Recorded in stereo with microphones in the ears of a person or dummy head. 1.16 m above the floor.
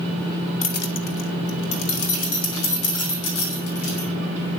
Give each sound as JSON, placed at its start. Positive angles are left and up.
{"t": 0.6, "sound": "keys jangling", "side_deg": 40, "distance_m": 0.5}